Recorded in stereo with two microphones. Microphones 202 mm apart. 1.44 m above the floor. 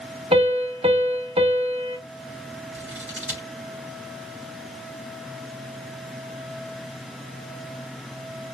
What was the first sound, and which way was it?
A piano, 30° right (ahead or behind).